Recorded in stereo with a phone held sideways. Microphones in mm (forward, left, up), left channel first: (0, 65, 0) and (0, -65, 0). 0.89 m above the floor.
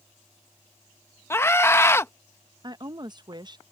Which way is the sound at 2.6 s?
35° right (ahead or behind).